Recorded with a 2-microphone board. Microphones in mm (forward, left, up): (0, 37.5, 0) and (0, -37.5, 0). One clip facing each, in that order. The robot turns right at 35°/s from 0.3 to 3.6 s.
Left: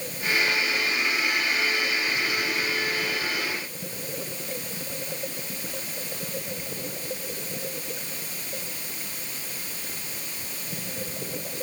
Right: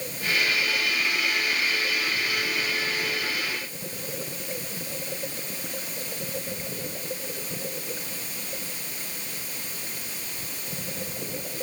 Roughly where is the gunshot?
I don't hear a gunshot.